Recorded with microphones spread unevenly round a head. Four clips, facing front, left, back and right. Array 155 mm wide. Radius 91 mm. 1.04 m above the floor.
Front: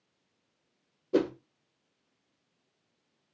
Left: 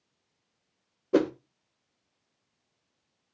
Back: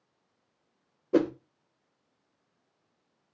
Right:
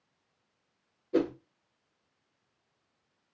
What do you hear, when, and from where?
1.1 s a whoosh: 105° left, 0.5 m